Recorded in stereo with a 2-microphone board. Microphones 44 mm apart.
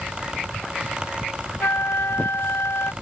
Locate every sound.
1.6 s a flute: 70° left (ahead or behind)